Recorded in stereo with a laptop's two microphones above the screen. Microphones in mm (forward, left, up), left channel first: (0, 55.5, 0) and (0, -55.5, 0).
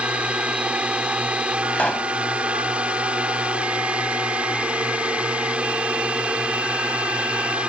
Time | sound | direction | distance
0.0 | a drone | 10° right (ahead or behind) | ?
1.7 | a pop | 10° left (ahead or behind) | ?